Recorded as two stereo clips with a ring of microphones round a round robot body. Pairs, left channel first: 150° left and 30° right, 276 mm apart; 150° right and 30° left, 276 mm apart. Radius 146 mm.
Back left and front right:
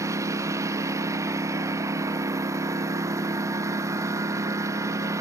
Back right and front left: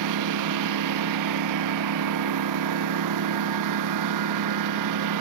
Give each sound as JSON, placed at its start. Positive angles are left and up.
{"t": 0.0, "sound": "a lawn mower", "azimuth_deg": 50}